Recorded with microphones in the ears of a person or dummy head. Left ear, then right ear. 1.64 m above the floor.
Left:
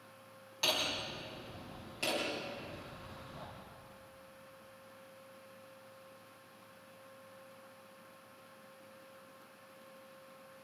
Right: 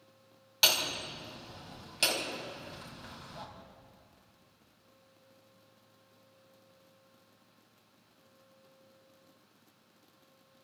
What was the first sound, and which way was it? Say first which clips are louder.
Hammering: right 6 dB; 60° right (ahead or behind).